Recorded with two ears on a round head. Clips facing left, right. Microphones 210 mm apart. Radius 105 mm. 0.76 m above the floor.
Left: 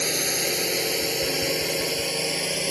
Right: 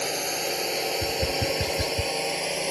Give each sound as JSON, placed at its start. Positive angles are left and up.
{"t": 0.0, "sound": "a drone", "side_deg": 30}
{"t": 1.0, "sound": "tapping", "side_deg": -55}